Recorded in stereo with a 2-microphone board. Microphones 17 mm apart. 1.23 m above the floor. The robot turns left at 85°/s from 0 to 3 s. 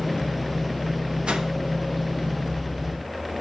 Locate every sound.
1.3 s a whoosh: 70° right (ahead or behind), 0.9 m; by 1.5 s 60° right (ahead or behind), 0.9 m